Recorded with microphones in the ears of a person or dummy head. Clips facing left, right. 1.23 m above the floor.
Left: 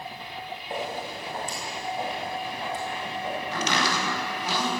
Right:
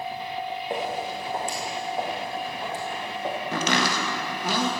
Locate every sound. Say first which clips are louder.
0.7 s footsteps: right 2 dB; 60° right (ahead or behind), 4.5 m; by 3.4 s 45° right (ahead or behind), 4.5 m
3.5 s chopping: right 2 dB; 45° right (ahead or behind), 2.0 m